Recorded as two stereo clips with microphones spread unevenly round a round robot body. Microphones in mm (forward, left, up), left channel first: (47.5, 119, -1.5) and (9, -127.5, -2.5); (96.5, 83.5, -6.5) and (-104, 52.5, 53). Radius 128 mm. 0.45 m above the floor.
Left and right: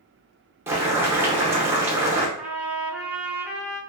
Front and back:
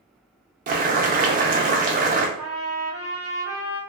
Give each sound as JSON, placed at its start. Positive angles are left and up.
{"t": 0.7, "sound": "boiling", "azimuth_deg": -160, "distance_m": 0.6}
{"t": 2.4, "sound": "a trumpet", "azimuth_deg": -15, "distance_m": 1.5}